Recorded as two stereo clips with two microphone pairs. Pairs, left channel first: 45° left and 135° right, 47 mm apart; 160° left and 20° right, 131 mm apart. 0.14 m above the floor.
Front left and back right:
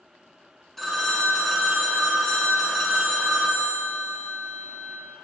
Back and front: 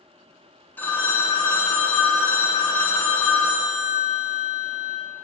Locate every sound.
0.8 s a phone ringing: 115° left, 0.9 m